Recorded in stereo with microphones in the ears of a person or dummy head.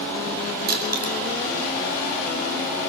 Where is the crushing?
55° right (ahead or behind), 7 m.